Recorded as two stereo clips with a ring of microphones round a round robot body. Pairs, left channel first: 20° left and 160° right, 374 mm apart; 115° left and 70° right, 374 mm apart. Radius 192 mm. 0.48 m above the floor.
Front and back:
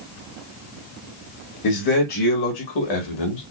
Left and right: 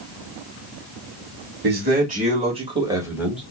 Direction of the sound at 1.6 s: 5° right.